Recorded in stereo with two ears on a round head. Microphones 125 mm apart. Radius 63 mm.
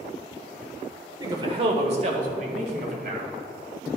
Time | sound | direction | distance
1.2 | a man speaking | 25° right (ahead or behind) | 1.3 m